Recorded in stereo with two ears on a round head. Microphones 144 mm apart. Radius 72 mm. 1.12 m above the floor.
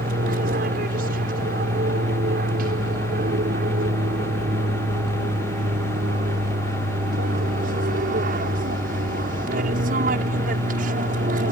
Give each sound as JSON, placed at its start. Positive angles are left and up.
{"t": 0.0, "sound": "an aircraft", "side_deg": -60}